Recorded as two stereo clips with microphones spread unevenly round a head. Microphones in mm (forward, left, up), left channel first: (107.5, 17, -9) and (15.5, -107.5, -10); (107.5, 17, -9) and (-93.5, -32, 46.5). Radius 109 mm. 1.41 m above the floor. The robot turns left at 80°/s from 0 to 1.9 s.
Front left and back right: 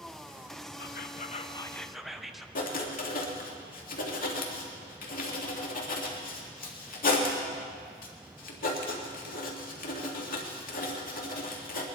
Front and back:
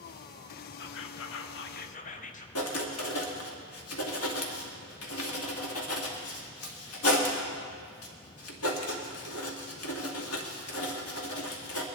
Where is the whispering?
50° left, 0.9 m; by 2.5 s 35° right, 0.9 m.